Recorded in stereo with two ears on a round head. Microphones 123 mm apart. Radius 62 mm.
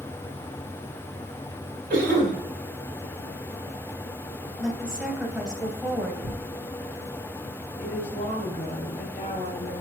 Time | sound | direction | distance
1.9 | a cough | 60° right (ahead or behind) | 3.5 m
4.6 | a woman speaking | 5° right (ahead or behind) | 2 m
6.2 | tearing paper | 5° right (ahead or behind) | 1.3 m
7.8 | a woman speaking | 45° left (ahead or behind) | 2.5 m